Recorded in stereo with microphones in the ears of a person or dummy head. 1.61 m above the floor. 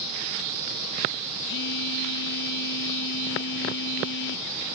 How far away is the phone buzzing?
About 0.6 m.